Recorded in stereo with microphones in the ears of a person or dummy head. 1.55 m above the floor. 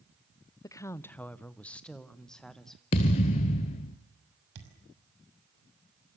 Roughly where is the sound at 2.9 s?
Left.